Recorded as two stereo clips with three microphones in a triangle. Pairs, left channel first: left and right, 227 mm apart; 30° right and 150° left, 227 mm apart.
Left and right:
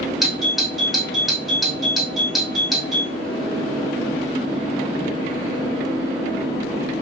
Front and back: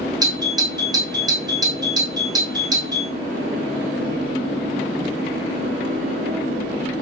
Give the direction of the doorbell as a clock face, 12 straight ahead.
6 o'clock.